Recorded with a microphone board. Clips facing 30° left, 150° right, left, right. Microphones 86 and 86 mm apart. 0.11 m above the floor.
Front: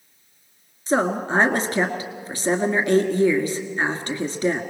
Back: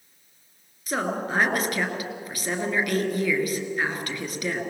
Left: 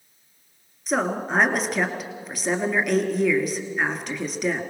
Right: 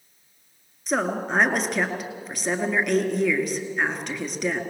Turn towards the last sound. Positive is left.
turn(degrees=0)